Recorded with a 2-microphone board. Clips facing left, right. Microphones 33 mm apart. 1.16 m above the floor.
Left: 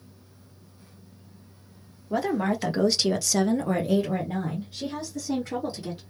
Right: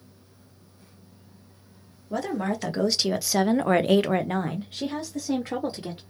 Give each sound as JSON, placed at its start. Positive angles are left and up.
{"t": 2.1, "sound": "a woman speaking", "side_deg": 15, "distance_m": 1.3}